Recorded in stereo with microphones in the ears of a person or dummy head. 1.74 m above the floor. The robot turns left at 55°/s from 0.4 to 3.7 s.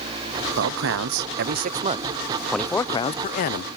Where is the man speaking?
75° right; by 3.7 s 115° left.